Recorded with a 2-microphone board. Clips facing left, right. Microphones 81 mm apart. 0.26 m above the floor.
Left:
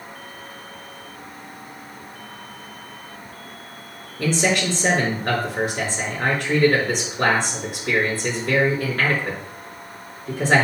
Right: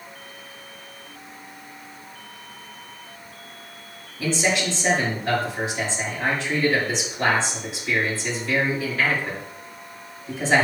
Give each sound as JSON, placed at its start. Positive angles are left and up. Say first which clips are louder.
{"t": 4.2, "sound": "a man speaking", "louder": "left 2 dB", "side_deg": 60, "distance_m": 4.5}